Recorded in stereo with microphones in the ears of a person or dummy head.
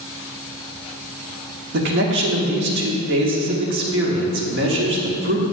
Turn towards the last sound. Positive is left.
turn(degrees=-55)  # may be behind; listen again after turning